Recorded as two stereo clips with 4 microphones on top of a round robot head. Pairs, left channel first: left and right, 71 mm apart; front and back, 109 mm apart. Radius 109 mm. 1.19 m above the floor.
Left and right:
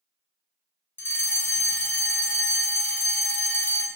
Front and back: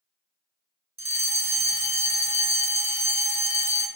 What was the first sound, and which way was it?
A fire alarm, 155° left.